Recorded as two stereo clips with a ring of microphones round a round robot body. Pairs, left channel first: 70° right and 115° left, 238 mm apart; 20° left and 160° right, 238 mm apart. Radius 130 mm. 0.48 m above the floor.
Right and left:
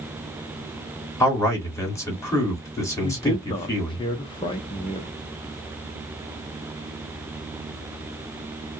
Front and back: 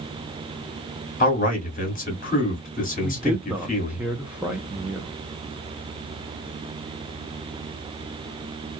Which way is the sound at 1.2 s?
Straight ahead.